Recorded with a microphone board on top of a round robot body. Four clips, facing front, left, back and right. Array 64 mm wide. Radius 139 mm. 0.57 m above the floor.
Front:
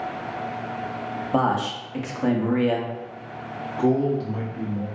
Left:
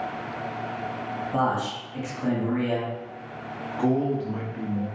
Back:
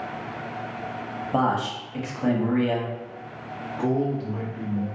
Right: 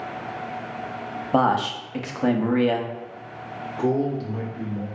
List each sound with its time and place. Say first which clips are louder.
1.3 s a man speaking: right 6 dB, front 1 dB; 85° right, 0.8 m
3.8 s a man speaking: right 1 dB, front 4 dB; 70° left, 1.3 m